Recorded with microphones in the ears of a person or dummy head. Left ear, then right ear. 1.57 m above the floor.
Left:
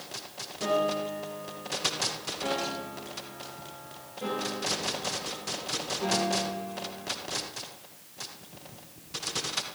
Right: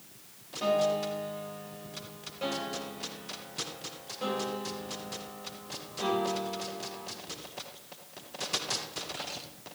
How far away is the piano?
About 1.6 m.